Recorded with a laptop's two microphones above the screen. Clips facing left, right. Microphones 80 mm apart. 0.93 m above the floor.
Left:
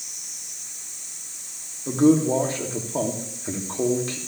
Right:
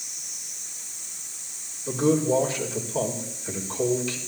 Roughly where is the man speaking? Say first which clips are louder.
Left 4 dB; left.